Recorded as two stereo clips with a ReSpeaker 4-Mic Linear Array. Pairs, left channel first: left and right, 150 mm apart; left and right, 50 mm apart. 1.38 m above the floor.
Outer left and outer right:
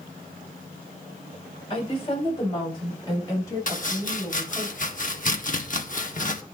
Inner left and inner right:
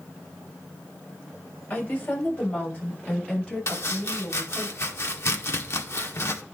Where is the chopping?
60° left (ahead or behind), 1.8 m.